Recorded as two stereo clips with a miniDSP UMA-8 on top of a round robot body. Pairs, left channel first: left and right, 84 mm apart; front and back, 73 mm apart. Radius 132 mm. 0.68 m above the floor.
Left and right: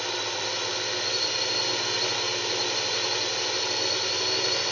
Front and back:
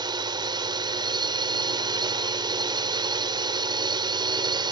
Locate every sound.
0.0 s a drone: straight behind